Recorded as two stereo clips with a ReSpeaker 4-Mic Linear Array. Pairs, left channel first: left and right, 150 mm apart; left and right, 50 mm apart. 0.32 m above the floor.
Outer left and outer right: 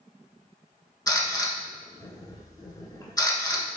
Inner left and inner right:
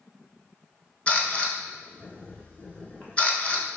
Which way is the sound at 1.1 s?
25° left (ahead or behind).